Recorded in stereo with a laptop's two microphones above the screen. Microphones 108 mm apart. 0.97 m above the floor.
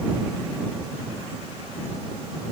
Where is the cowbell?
No cowbell in this recording.